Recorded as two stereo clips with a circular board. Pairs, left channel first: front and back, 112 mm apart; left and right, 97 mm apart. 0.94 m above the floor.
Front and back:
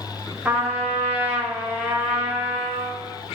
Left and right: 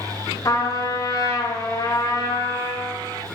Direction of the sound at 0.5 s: 110° left.